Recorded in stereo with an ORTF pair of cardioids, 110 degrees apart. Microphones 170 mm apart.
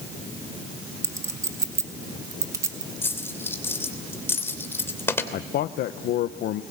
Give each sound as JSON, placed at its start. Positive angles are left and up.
{"t": 1.0, "sound": "a clink", "azimuth_deg": -20, "distance_m": 1.8}
{"t": 3.0, "sound": "a dropped coin", "azimuth_deg": 15, "distance_m": 3.0}
{"t": 5.3, "sound": "a man speaking", "azimuth_deg": 65, "distance_m": 0.8}